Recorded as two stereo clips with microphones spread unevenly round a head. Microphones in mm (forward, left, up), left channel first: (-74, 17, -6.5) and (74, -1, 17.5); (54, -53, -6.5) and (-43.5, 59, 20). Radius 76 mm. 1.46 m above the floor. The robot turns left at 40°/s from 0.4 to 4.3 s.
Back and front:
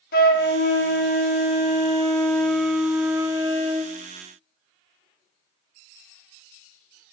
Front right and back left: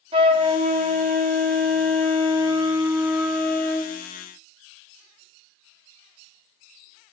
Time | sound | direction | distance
0.1 | a flute | 165° left | 1.2 m